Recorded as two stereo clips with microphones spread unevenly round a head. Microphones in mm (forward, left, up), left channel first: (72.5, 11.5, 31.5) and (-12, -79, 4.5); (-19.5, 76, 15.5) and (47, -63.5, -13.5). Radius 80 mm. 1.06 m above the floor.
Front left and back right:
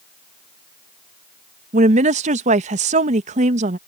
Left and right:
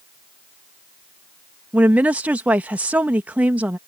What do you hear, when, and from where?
1.7 s a woman speaking: 140° right